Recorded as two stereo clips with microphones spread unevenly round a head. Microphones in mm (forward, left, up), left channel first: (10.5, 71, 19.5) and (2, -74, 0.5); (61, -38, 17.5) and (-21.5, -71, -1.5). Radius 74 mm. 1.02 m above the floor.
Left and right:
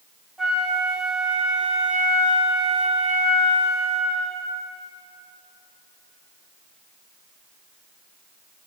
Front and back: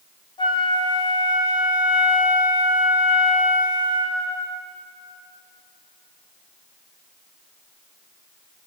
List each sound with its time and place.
0.4 s a flute: 15° right, 1.3 m